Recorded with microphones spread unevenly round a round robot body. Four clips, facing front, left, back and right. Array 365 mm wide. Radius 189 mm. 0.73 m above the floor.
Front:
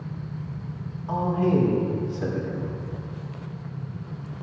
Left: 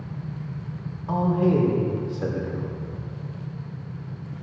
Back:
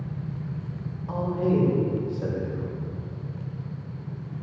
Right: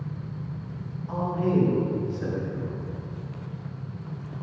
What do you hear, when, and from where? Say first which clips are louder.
1.1 s a man speaking: left 4 dB, front 2 dB; 65° left, 3 m